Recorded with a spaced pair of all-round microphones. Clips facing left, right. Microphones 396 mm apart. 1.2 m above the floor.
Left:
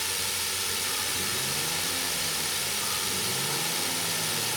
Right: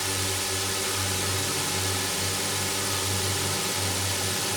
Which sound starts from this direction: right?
A drone, at 0.0 s.